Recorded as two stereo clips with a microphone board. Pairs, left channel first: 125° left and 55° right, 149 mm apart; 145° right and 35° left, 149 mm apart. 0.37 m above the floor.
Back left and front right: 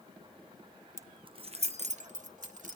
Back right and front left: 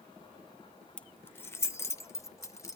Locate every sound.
1.0 s keys jangling: 80° right, 0.5 m